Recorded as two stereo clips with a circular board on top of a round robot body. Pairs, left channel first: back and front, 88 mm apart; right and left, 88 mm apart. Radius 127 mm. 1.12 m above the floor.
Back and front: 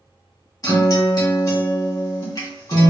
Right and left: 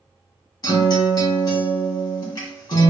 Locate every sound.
0.6 s a guitar: 125° right, 2 m